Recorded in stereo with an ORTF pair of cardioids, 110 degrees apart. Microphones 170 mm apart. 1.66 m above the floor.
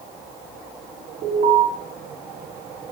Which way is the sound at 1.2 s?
65° right.